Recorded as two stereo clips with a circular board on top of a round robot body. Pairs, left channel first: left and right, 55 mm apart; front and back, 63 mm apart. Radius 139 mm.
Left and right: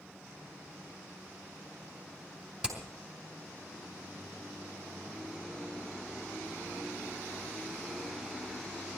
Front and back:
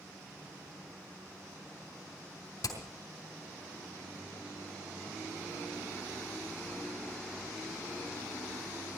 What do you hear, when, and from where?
2.6 s hammering: 20° right, 5 m